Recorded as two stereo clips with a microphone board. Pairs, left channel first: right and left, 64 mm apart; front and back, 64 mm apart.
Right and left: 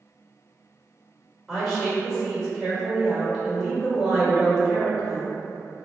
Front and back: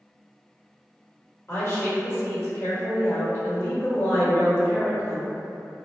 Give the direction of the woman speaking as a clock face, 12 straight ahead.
12 o'clock.